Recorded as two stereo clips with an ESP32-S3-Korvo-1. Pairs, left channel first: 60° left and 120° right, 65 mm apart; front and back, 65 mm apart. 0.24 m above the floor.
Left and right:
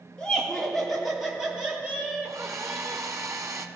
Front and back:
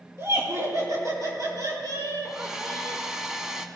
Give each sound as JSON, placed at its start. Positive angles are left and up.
{"t": 0.2, "sound": "laughter", "azimuth_deg": 140, "distance_m": 4.0}
{"t": 2.2, "sound": "a hair dryer", "azimuth_deg": -100, "distance_m": 0.8}